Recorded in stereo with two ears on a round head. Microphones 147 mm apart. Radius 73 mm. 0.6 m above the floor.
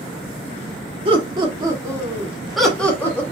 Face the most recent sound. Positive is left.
turn(degrees=15)  # may be behind; listen again after turning